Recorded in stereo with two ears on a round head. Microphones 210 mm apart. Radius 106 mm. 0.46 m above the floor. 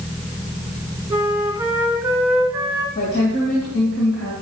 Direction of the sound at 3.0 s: 50° left (ahead or behind).